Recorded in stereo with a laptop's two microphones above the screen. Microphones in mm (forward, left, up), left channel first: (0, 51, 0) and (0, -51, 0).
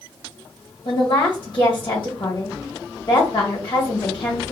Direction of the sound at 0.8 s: 55° left (ahead or behind).